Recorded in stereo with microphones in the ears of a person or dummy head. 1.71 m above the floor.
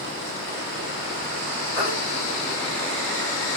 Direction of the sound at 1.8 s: 5° right (ahead or behind).